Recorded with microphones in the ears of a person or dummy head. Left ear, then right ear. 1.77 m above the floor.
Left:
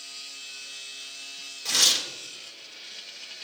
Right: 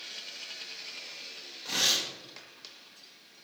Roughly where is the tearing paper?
Left.